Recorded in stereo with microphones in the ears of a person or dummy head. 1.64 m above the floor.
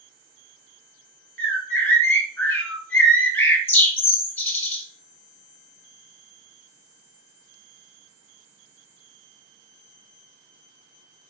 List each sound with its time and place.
1.4 s a bird: 15° left (ahead or behind), 0.9 m